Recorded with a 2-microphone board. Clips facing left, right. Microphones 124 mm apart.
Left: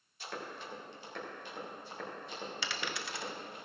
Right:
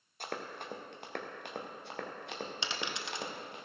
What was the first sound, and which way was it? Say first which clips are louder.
Running footsteps: right 2 dB; 60° right (ahead or behind).